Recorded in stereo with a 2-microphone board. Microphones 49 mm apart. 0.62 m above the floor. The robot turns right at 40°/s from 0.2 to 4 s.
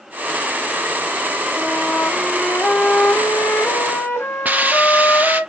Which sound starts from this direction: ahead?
A flute, at 1.6 s.